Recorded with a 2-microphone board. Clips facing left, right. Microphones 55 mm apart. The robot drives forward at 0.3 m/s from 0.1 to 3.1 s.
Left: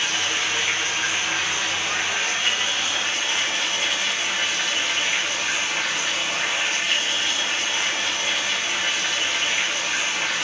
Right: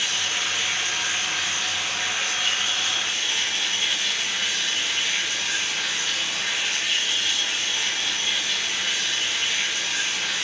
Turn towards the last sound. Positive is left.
turn(degrees=40)  # may be behind; listen again after turning